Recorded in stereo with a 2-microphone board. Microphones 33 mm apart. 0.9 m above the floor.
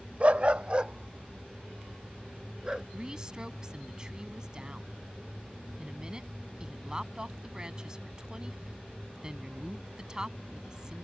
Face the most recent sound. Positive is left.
turn(degrees=-20)  # may be behind; listen again after turning